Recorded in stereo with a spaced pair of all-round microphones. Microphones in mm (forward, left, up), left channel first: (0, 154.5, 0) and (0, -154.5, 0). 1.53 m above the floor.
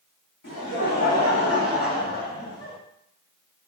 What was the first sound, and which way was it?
Laughter, 75° left (ahead or behind).